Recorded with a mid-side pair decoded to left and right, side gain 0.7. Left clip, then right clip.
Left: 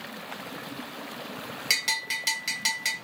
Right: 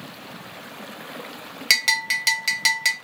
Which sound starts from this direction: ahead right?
A bell, at 1.7 s.